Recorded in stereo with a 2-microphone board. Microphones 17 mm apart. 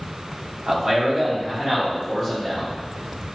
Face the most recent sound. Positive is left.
turn(degrees=-5)  # may be behind; listen again after turning